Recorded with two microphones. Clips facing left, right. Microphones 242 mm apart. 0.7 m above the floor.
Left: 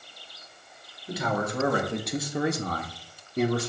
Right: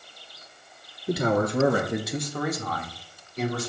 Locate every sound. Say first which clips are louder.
1.1 s a man speaking: right 6 dB; 50° right (ahead or behind), 1.5 m; by 3.7 s 65° left (ahead or behind), 1.9 m